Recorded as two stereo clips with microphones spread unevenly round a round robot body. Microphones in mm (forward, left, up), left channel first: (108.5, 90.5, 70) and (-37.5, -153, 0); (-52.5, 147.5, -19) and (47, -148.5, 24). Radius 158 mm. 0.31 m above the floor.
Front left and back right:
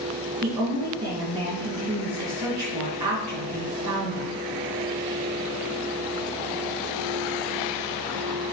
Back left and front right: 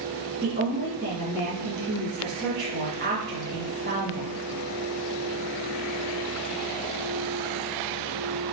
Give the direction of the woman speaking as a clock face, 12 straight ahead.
4 o'clock.